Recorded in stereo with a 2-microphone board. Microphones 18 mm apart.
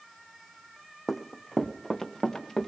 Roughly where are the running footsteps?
Centre.